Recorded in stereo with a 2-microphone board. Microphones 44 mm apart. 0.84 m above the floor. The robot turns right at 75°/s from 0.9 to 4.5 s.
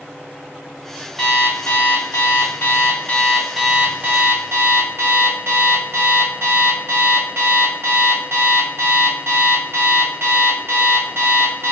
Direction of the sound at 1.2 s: 10° left.